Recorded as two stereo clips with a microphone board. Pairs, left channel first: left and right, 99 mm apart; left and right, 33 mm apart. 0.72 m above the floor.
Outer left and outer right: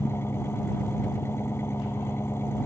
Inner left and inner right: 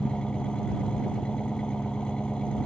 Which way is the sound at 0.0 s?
25° left (ahead or behind).